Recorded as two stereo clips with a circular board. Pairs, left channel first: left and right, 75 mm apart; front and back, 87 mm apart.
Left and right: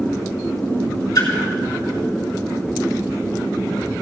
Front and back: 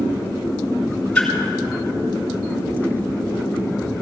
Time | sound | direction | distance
1.1 | a splash | 75° left | 3.5 m